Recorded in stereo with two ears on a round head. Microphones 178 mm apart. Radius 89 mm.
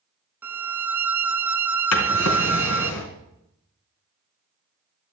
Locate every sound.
0.4 s a violin: 10° right (ahead or behind), 0.6 m
1.9 s a drawer: 85° left, 3.5 m